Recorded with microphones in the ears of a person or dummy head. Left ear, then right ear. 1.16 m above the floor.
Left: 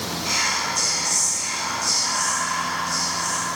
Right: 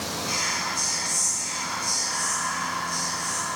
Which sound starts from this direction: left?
Whispering, at 0.2 s.